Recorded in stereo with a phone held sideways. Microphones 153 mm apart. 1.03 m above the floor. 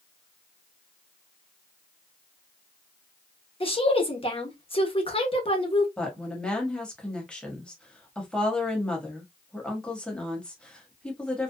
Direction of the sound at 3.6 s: 35° left (ahead or behind).